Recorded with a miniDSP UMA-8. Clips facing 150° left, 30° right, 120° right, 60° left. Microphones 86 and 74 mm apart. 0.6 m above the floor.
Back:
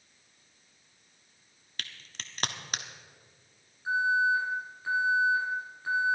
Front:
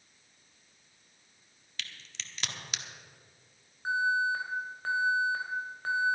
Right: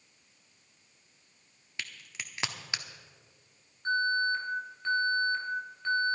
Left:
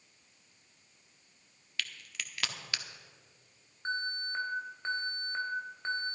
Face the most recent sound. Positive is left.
turn(degrees=0)